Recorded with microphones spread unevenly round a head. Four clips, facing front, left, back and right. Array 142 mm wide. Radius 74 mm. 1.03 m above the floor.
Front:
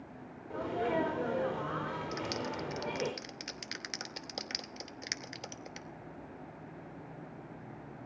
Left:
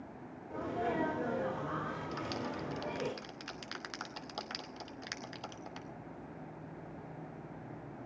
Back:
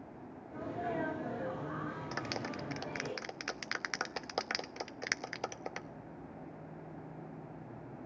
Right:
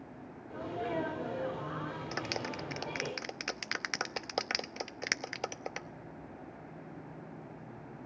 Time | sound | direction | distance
0.5 | a sneeze | 5° left | 4 m
2.1 | a clap | 110° right | 0.8 m